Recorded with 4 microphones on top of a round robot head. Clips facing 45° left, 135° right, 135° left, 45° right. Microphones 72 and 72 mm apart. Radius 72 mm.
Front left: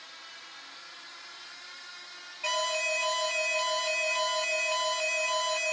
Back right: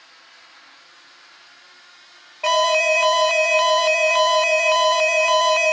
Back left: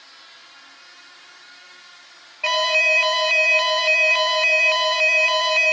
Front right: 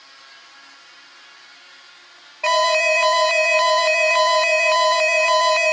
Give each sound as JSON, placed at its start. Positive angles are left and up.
{"t": 2.4, "sound": "an alarm", "azimuth_deg": -110, "distance_m": 0.6}